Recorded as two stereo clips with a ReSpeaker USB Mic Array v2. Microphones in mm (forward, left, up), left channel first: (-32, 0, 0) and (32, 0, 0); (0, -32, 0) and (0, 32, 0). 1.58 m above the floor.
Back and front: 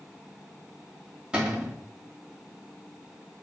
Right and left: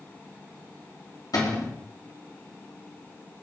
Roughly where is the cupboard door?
Right.